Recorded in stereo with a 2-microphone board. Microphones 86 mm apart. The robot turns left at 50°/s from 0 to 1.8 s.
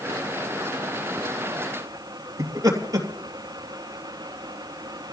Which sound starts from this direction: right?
Laughter, at 2.4 s.